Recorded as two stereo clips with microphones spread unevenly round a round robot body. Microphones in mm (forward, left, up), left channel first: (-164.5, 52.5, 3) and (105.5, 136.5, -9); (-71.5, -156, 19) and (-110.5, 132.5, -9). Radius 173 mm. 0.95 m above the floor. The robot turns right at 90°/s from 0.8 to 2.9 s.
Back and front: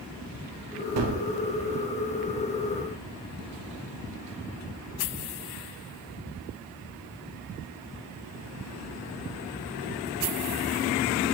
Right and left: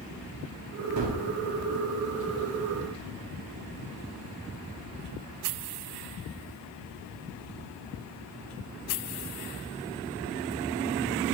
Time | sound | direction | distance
1.0 | a gunshot | 50° left | 0.9 m